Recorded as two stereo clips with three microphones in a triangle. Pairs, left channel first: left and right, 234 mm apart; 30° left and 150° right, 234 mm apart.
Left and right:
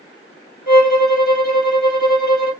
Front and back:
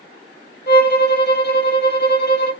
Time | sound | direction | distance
0.7 | a violin | 60° left | 0.7 m